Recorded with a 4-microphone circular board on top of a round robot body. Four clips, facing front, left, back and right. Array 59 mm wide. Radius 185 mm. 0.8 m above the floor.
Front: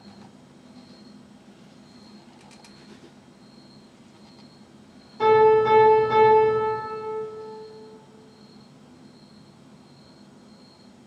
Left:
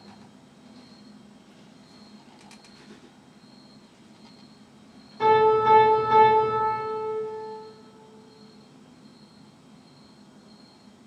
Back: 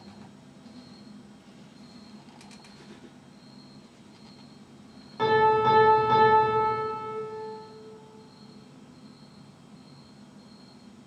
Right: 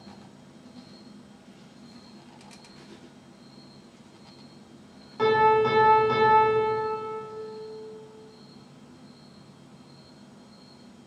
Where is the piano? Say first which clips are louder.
Left 2 dB, front 5 dB; 135° right, 0.9 m.